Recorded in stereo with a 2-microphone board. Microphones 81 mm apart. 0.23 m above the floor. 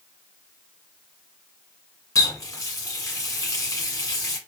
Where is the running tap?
45° left (ahead or behind), 1.5 m.